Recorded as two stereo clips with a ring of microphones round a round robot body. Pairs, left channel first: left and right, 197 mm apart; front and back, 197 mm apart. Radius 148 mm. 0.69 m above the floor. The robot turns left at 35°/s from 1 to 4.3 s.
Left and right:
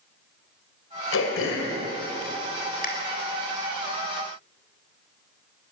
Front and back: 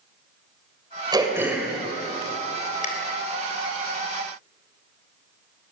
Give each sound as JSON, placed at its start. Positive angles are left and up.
{"t": 1.1, "sound": "throat clearing", "azimuth_deg": 110, "distance_m": 3.5}